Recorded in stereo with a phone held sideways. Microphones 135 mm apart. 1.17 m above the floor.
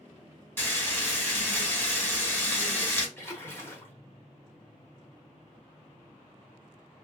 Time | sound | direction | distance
0.6 | frying | 15° left (ahead or behind) | 1.1 m
3.2 | a splash | 20° left (ahead or behind) | 0.9 m